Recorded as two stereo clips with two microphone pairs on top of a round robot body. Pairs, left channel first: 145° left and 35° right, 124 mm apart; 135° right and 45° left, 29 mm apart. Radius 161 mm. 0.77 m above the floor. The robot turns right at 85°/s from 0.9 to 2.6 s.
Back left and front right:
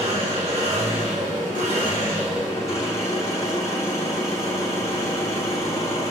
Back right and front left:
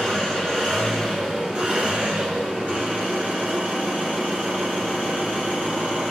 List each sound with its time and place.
0.0 s an engine running: 70° right, 1.9 m; by 6.1 s 75° left, 1.9 m